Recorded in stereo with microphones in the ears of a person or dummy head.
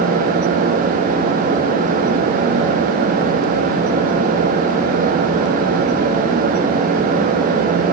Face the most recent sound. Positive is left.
No sound to turn to.